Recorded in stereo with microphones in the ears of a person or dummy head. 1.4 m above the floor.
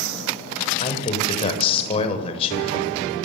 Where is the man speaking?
30° left (ahead or behind), 7.5 m.